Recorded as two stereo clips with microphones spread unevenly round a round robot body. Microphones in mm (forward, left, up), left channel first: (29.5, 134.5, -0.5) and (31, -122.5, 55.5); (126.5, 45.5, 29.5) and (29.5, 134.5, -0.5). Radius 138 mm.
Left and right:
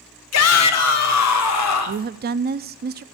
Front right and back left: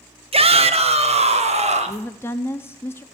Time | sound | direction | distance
0.3 | a shout | 100° left | 1.5 m
1.9 | a woman speaking | 125° right | 0.6 m